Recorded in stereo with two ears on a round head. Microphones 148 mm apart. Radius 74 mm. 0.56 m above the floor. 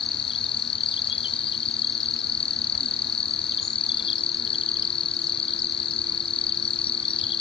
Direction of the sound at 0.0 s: 35° left (ahead or behind).